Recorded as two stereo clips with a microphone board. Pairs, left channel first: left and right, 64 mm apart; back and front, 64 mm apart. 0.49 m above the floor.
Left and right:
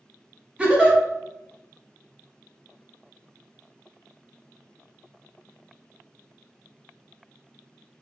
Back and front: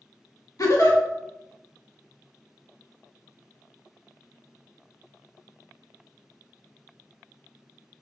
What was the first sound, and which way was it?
A giggle, 160° right.